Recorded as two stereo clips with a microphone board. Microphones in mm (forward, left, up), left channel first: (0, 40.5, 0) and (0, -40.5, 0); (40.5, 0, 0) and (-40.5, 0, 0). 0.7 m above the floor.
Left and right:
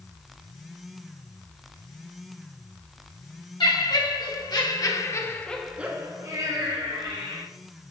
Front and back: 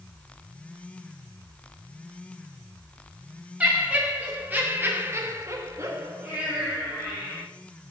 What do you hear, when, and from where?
3.6 s laughter: 110° left, 2.5 m; by 7.4 s 100° right, 2 m